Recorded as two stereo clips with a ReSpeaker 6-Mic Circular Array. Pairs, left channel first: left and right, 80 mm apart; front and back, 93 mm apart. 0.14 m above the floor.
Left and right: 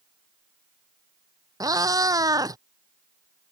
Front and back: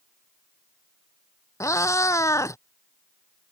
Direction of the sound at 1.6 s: 55° right.